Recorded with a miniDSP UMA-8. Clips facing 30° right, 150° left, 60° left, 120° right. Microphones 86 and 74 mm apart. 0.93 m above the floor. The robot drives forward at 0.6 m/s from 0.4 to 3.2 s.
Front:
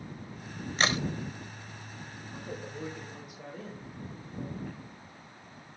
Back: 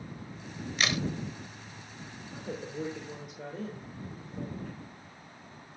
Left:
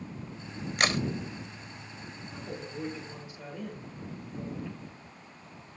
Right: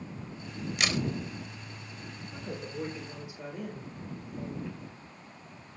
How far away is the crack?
About 1.1 m.